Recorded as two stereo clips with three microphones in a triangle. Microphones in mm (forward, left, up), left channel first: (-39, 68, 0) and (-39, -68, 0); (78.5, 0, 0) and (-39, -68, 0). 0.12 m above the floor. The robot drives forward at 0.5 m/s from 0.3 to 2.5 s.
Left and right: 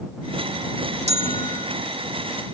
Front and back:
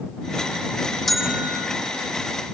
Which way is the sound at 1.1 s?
60° right.